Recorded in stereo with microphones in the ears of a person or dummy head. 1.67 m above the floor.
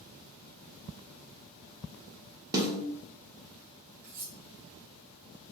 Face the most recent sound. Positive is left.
turn(degrees=-60)  # may be behind; listen again after turning